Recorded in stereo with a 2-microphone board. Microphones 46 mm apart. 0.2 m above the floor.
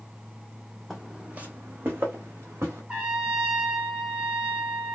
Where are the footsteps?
Centre (ahead or behind), 0.6 m; by 2.8 s 75° right (ahead or behind), 1.2 m.